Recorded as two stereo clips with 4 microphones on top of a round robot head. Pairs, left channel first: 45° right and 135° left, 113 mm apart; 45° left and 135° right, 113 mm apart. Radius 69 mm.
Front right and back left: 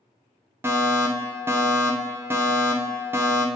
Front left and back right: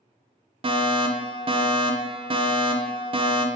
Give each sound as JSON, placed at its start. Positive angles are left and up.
{"t": 0.6, "sound": "a fire alarm", "azimuth_deg": -160, "distance_m": 1.1}